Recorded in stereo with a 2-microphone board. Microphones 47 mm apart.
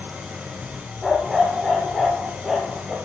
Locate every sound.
0.0 s an engine running: 25° right (ahead or behind), 8 m
1.0 s a dog barking: 5° right (ahead or behind), 3.5 m